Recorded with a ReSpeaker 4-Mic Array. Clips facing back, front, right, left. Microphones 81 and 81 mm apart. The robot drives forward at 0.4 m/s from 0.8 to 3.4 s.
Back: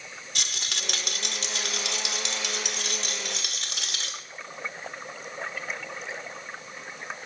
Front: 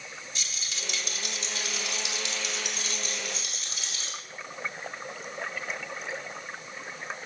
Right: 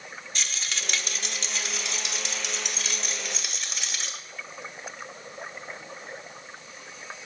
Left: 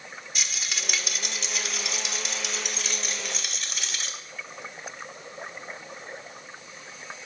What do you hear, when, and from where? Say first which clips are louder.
0.3 s a rattle: back 7 dB, even; 175° left, 0.7 m